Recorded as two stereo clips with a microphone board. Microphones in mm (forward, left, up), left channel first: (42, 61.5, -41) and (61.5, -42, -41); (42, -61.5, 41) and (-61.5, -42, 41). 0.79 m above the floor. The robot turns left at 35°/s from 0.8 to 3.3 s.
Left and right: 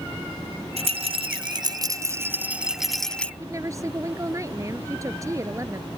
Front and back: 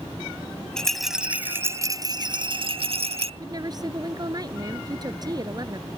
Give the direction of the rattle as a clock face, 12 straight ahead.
3 o'clock.